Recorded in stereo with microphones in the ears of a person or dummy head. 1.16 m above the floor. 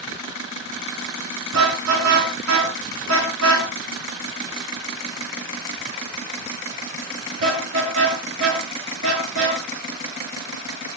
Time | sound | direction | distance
1.5 | a car horn | 70° right (ahead or behind) | 6 m